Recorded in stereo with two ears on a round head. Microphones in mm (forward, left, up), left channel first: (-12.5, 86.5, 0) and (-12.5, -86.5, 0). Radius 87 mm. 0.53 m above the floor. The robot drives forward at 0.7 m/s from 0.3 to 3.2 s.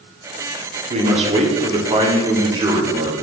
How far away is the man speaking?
About 1.3 m.